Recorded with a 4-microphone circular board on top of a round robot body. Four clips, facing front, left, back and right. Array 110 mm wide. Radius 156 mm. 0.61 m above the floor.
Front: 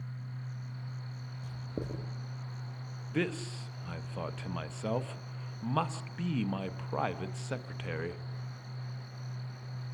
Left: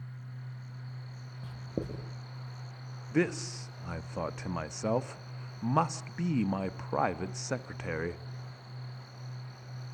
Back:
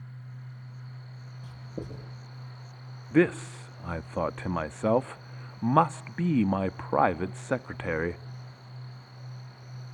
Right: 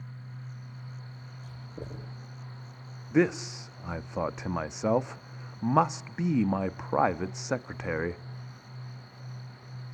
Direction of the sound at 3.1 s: 150° right.